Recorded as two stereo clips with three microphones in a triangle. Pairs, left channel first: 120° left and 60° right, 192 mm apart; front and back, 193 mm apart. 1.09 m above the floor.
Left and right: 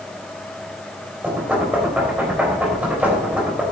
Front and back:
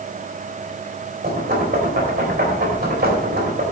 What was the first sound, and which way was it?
Knocking, 140° right.